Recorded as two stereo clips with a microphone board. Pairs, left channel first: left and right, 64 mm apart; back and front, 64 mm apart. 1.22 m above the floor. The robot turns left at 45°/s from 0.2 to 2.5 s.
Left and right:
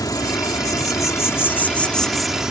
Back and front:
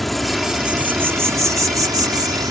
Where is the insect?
90° left; by 2.5 s 10° right.